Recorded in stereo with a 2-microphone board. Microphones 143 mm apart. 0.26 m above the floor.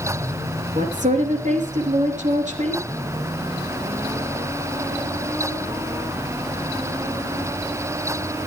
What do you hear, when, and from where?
0.8 s a woman speaking: 60° right (ahead or behind), 4.5 m